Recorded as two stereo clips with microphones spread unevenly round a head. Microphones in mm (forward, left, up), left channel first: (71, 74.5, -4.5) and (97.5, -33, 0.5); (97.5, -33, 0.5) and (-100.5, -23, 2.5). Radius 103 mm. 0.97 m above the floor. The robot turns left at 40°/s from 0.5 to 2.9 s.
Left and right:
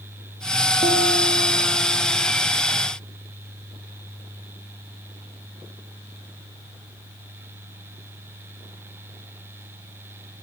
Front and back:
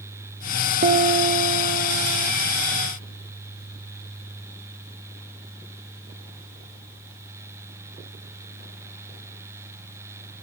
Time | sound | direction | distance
0.8 | a piano | 135° right | 0.5 m